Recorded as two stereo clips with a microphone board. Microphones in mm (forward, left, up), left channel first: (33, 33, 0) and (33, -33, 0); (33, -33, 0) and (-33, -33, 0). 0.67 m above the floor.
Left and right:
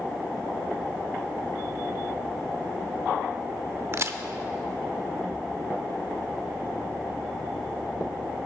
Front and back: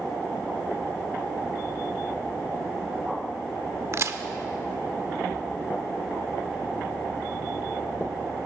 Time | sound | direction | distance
3.9 | a crack | 130° right | 0.5 m